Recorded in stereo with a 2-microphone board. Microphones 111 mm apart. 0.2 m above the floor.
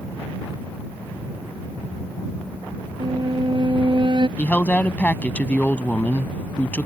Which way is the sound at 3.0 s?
50° right (ahead or behind).